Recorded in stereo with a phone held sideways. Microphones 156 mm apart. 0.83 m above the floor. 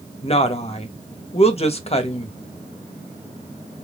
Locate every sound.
0.2 s a woman speaking: 40° left (ahead or behind), 1.2 m